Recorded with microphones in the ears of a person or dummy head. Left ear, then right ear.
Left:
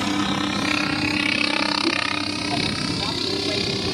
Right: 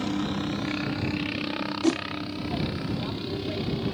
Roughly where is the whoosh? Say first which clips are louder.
Left 4 dB; right.